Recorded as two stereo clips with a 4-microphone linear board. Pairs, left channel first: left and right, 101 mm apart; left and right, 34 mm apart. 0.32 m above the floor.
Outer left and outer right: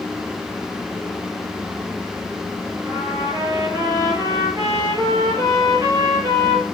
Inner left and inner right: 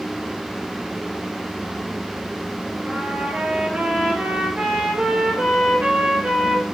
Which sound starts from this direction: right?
A trumpet, at 2.9 s.